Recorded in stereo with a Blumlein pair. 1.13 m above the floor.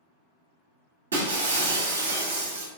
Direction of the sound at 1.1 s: 65° right.